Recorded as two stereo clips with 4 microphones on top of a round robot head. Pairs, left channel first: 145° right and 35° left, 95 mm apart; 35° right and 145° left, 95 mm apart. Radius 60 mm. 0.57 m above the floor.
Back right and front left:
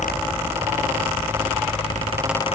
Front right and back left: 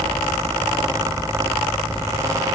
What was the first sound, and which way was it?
Only background noise.